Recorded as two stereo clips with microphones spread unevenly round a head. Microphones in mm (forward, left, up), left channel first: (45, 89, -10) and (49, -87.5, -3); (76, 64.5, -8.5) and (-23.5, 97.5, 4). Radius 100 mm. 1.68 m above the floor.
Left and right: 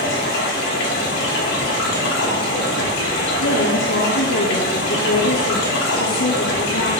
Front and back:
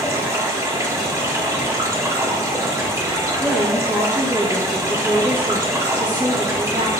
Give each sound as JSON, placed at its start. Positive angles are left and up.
{"t": 0.0, "sound": "running water", "azimuth_deg": 105, "distance_m": 3.0}
{"t": 3.4, "sound": "a woman speaking", "azimuth_deg": 90, "distance_m": 1.9}